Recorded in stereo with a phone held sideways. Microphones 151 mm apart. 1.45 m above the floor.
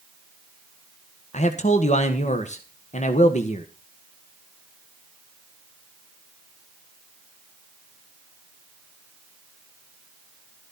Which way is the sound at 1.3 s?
50° left (ahead or behind).